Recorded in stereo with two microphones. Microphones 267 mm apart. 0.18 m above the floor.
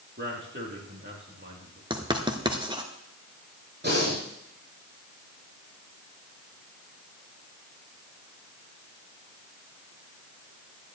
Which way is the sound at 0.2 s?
45° right (ahead or behind).